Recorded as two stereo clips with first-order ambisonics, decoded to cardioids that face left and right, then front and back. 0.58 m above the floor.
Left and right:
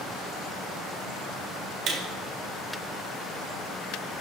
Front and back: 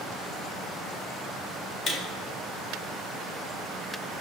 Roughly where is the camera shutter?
Ahead right.